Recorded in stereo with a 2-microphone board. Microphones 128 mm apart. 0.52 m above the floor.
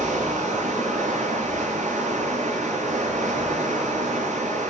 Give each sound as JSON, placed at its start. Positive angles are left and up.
{"t": 0.0, "sound": "running water", "side_deg": -65, "distance_m": 7.5}